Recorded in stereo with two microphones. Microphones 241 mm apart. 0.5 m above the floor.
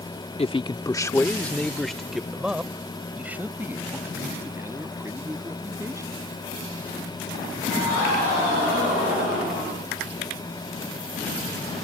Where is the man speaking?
25° left (ahead or behind); by 6.4 s 15° right (ahead or behind).